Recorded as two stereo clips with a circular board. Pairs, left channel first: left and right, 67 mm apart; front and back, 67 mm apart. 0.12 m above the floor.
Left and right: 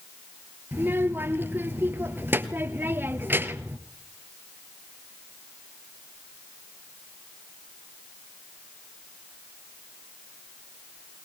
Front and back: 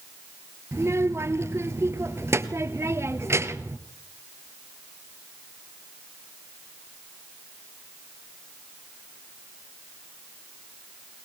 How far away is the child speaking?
About 1.5 m.